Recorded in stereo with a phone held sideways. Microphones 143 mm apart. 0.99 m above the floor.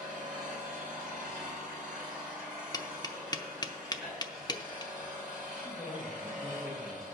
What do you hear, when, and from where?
0.0 s an engine running: 5° right (ahead or behind), 4.5 m
2.7 s tapping: 30° left (ahead or behind), 0.6 m
5.6 s a man speaking: 5° left (ahead or behind), 4 m